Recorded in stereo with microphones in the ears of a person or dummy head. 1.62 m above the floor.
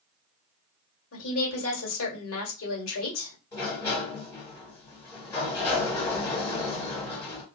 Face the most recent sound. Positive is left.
turn(degrees=15)  # may be behind; listen again after turning